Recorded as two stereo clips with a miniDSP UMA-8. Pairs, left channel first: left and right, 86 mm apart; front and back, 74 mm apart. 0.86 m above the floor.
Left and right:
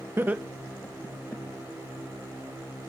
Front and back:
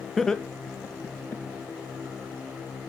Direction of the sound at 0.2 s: 85° right.